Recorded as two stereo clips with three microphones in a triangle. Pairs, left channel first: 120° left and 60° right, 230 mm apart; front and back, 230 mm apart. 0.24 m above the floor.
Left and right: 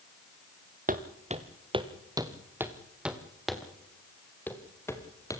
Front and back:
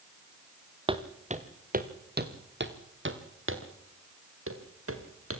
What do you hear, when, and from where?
0.9 s footsteps: 110° right, 2 m; by 5.4 s 165° right, 4 m